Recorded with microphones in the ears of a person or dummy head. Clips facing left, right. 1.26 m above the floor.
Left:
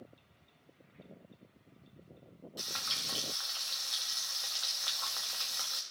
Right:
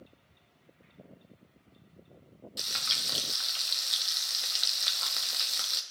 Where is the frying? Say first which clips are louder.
Left 1 dB; 30° right (ahead or behind), 0.9 m.